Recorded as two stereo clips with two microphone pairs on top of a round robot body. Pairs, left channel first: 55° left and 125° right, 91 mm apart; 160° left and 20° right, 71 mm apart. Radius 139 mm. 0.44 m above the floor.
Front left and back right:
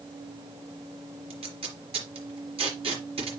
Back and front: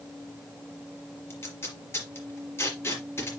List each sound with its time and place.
1.3 s tape being pulled: 145° right, 4 m